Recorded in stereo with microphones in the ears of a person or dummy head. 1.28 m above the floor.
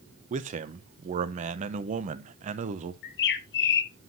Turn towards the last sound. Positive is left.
turn(degrees=60)  # may be behind; listen again after turning